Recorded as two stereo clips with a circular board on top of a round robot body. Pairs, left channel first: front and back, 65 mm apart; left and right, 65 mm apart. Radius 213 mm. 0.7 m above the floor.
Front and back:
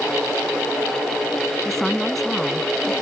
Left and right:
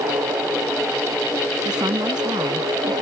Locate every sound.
1.6 s a woman speaking: 85° right; by 2.9 s 90° right